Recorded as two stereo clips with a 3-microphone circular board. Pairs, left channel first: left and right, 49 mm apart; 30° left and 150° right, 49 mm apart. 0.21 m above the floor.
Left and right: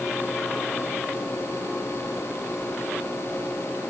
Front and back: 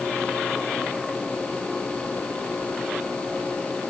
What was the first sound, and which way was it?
Only background noise.